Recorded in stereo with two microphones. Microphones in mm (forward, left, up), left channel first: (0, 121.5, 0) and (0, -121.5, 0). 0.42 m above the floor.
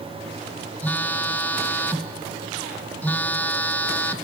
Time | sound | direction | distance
0.8 | a phone buzzing | 10° left (ahead or behind) | 0.6 m